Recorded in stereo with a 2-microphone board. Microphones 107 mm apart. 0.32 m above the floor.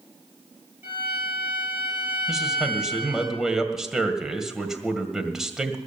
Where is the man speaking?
5° right (ahead or behind), 1.8 m.